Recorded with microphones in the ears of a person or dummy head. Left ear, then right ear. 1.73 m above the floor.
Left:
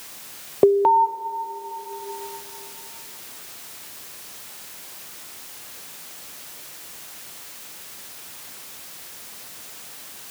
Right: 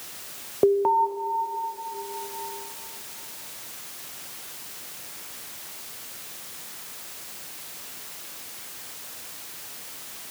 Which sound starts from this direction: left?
An alarm, at 0.6 s.